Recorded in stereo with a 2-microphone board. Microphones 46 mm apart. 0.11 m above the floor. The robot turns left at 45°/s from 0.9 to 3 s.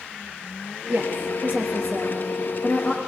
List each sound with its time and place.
0.9 s a woman speaking: 55° right (ahead or behind), 2 m; by 3.0 s 5° left (ahead or behind), 2 m